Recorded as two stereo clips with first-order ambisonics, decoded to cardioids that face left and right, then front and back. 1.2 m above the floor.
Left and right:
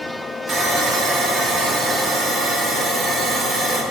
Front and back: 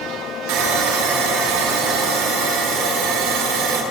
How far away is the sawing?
About 1.3 m.